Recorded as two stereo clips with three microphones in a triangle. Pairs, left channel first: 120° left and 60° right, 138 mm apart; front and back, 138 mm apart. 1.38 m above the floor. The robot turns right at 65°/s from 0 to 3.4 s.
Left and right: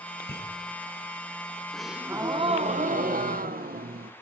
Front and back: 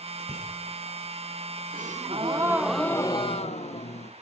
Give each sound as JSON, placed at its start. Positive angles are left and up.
{"t": 0.2, "sound": "a bicycle bell", "azimuth_deg": 120, "distance_m": 5.5}
{"t": 1.7, "sound": "a gasp", "azimuth_deg": -155, "distance_m": 0.8}